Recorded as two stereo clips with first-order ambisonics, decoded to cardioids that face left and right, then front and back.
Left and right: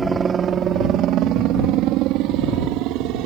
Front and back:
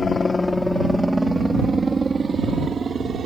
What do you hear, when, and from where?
0.0 s a helicopter: 40° right; by 3.3 s 115° right